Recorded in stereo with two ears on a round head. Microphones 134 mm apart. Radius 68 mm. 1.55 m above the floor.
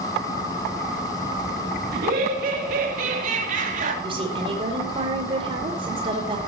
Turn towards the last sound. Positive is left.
turn(degrees=-35)  # may be behind; listen again after turning